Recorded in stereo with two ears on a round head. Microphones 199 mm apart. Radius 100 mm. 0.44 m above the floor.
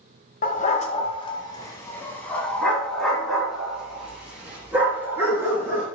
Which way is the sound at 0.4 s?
40° left (ahead or behind).